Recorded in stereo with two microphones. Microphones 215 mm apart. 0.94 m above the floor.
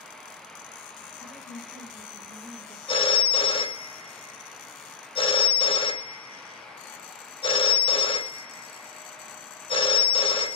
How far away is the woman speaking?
About 2.5 m.